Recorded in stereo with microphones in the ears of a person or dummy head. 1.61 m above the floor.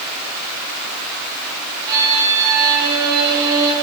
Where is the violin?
25° right (ahead or behind), 8 m.